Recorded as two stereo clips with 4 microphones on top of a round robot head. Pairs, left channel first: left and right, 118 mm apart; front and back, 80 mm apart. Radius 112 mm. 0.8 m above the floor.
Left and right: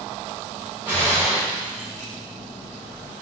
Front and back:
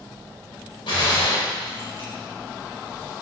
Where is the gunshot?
15° right, 4 m.